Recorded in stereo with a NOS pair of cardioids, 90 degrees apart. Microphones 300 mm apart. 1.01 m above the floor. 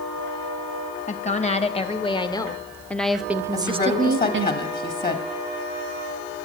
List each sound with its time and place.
1.1 s a woman speaking: 25° left, 1.8 m; by 4.5 s 60° right, 0.7 m
3.5 s a woman speaking: 30° left, 2 m